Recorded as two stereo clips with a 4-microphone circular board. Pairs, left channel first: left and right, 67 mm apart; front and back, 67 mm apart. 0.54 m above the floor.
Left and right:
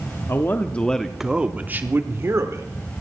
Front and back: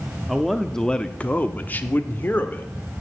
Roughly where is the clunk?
I don't hear a clunk.